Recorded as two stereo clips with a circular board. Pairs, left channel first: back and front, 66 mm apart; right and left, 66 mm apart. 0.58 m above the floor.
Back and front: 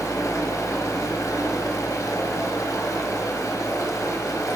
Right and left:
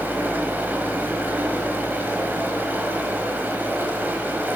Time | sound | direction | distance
0.0 | running water | 150° left | 1.3 m